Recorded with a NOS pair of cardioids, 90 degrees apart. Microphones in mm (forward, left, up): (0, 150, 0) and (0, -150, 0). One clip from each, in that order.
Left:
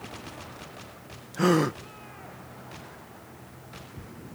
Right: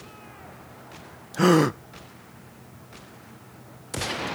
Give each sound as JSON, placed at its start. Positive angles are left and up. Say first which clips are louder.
{"t": 1.3, "sound": "a gasp", "louder": "right 4 dB", "azimuth_deg": -25}